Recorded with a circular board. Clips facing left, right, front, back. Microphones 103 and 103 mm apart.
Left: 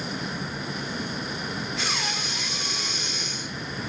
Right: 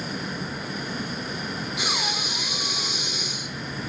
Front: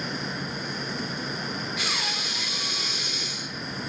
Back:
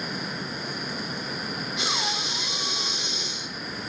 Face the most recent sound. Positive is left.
turn(degrees=-150)